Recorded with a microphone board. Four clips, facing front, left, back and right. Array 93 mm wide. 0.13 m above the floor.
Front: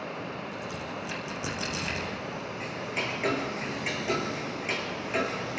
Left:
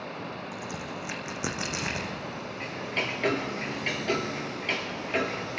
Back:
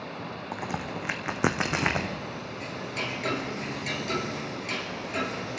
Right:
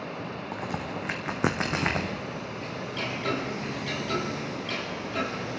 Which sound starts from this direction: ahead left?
Ticking, at 2.6 s.